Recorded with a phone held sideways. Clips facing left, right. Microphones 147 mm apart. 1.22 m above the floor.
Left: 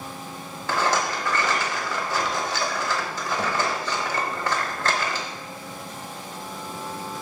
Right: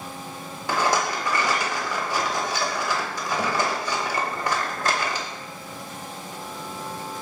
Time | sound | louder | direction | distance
0.7 | a rattle | right 1 dB | 15° right (ahead or behind) | 0.9 m